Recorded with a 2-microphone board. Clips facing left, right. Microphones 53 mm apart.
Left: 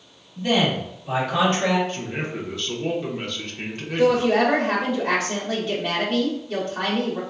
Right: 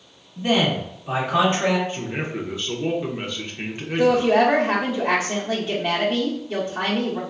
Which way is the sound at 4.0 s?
10° right (ahead or behind).